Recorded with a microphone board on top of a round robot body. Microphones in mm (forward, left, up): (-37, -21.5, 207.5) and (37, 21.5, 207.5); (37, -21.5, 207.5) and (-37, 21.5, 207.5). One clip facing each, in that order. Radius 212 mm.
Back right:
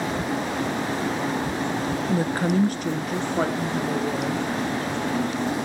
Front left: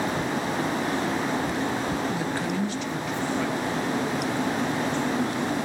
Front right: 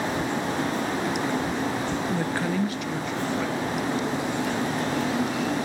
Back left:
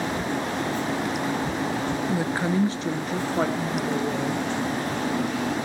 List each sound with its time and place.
2.1 s a woman speaking: 130° right, 1.4 m; by 4.5 s 175° left, 3 m